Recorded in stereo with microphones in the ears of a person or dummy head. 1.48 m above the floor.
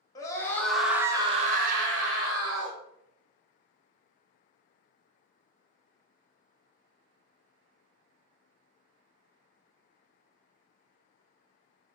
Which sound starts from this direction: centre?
A scream, at 0.1 s.